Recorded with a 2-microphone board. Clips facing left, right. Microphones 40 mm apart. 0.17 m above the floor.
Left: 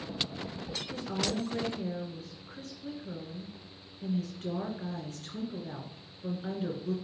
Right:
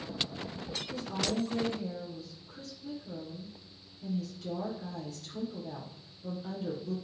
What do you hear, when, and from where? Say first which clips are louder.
0.9 s a woman speaking: even; 50° left (ahead or behind), 2 m